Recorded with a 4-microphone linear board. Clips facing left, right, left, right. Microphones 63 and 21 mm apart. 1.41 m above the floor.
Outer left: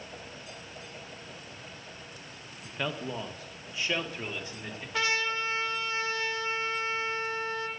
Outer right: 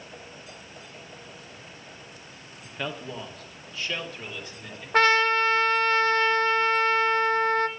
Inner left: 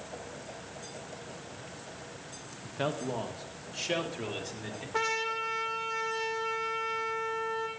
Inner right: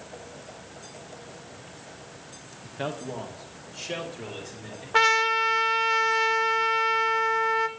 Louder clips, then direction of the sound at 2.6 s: Even, even; 5° right (ahead or behind).